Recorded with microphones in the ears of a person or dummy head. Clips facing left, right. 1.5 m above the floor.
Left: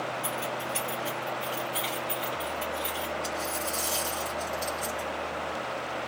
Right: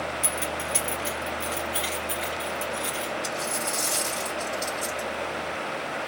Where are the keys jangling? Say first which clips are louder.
Right 2 dB; 50° right (ahead or behind), 1.2 m; by 3.1 s 25° right (ahead or behind), 3 m.